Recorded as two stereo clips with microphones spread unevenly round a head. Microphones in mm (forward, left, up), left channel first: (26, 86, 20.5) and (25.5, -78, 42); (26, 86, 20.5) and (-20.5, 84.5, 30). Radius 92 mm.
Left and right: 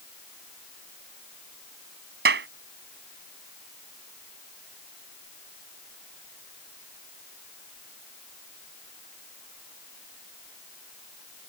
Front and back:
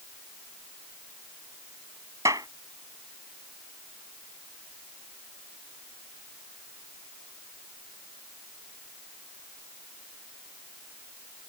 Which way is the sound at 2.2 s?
125° right.